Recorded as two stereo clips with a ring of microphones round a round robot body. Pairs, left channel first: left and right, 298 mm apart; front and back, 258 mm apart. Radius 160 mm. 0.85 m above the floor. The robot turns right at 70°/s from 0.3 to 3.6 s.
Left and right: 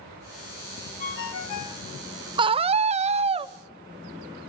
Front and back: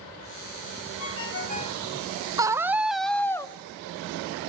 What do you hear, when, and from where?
1.0 s a ringtone: 20° left, 2.0 m; by 1.8 s 80° left, 2.0 m
2.4 s a scream: 130° right, 0.7 m; by 3.5 s 50° right, 0.7 m